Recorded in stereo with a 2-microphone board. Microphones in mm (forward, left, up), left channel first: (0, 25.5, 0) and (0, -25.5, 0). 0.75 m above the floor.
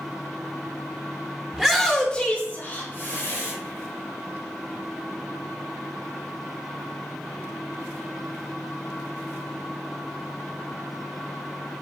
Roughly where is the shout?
Centre.